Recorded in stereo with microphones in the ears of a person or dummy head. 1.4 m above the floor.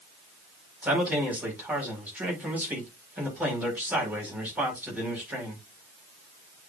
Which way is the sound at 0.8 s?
5° right (ahead or behind).